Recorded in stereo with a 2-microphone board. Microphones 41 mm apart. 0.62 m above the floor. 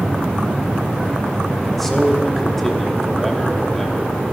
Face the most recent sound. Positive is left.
turn(degrees=5)  # may be behind; listen again after turning